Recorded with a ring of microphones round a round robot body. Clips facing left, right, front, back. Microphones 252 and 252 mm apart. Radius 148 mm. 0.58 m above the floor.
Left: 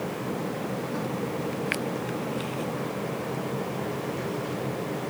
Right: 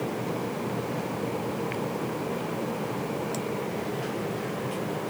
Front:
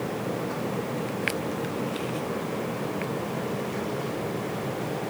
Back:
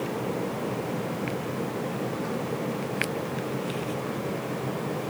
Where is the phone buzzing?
No phone buzzing in this recording.